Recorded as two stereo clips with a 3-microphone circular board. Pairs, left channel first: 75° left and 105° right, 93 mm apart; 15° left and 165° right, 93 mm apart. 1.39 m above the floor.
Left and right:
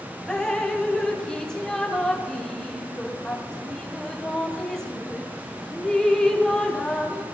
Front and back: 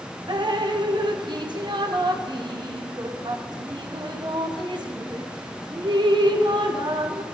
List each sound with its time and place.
0.3 s dripping: 155° left, 0.7 m